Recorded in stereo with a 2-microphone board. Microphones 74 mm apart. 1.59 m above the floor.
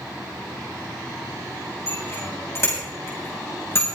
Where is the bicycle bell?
40° left (ahead or behind), 8 m; by 3.9 s 35° left (ahead or behind), 7 m.